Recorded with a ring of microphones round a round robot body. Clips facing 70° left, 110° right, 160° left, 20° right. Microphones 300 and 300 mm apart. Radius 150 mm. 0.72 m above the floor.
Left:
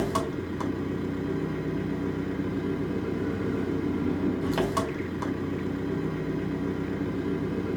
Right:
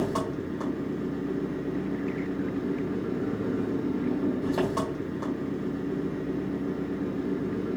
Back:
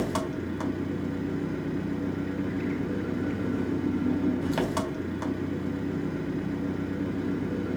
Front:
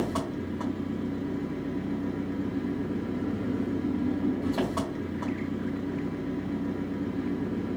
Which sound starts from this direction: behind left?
An engine running, at 0.0 s.